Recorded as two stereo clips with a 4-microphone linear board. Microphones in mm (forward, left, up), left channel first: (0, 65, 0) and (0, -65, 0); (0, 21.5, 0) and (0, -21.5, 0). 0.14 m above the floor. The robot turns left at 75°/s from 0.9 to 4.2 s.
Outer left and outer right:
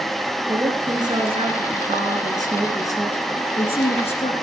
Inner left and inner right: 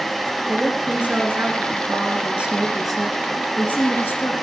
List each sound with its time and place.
0.5 s a woman speaking: 30° right, 2.5 m; by 4.3 s 80° left, 2.5 m